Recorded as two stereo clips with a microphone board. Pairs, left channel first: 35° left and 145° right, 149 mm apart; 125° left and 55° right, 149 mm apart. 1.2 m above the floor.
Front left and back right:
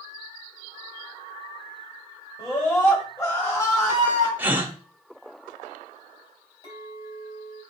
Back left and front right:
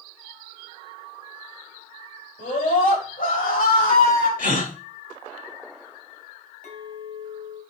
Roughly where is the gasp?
Behind left.